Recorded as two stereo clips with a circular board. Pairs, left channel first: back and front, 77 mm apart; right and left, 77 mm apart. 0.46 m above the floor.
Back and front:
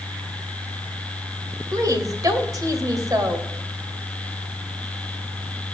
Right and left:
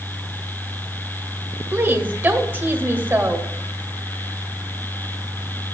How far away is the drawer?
I don't hear a drawer.